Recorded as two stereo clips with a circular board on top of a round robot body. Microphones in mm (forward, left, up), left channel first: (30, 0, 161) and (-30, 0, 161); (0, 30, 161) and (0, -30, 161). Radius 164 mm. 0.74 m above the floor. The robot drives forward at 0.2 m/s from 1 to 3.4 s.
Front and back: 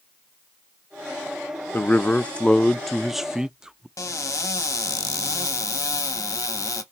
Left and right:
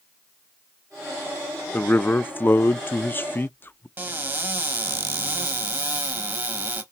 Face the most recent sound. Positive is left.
turn(degrees=-35)